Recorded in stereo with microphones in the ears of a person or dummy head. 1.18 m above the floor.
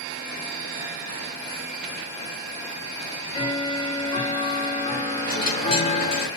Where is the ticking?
30° left (ahead or behind), 0.5 m.